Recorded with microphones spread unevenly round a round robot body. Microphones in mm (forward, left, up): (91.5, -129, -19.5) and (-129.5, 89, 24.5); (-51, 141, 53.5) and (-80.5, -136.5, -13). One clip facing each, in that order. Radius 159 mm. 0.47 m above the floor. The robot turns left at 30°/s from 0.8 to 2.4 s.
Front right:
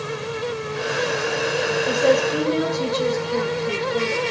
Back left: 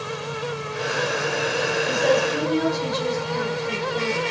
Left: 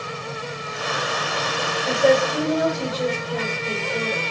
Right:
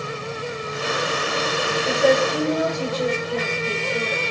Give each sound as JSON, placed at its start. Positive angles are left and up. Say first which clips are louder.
{"t": 1.9, "sound": "a woman speaking", "louder": "front right 3 dB, left 1 dB", "azimuth_deg": -10, "distance_m": 2.0}